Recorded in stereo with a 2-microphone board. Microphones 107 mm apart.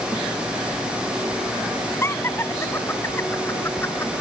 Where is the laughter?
25° left (ahead or behind).